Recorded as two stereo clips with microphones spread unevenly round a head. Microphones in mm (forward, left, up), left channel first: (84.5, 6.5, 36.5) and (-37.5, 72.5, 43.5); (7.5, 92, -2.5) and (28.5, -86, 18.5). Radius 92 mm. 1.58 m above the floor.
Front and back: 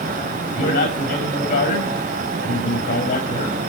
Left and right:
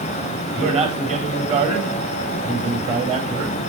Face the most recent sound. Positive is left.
turn(degrees=-25)